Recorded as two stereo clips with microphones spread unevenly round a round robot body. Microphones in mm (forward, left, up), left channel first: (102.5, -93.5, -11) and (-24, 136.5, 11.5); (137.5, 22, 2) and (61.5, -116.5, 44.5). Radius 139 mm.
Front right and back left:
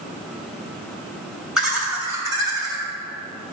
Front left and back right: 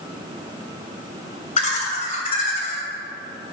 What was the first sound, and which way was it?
Laughter, 30° left.